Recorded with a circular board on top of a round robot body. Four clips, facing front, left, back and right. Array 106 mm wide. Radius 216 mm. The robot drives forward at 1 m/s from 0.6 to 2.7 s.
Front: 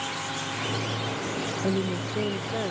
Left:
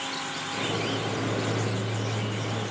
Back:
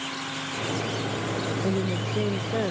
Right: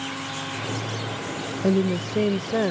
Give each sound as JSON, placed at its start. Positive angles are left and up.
{"t": 1.6, "sound": "a woman speaking", "azimuth_deg": -85}